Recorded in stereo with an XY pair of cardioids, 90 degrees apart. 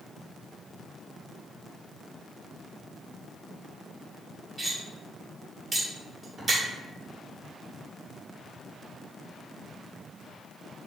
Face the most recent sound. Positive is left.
turn(degrees=-25)